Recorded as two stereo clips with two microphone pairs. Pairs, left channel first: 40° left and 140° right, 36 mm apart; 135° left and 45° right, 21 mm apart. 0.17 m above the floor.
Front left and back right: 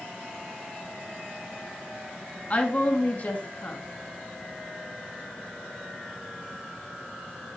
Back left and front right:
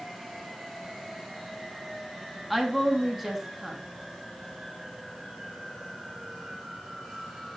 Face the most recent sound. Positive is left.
turn(degrees=40)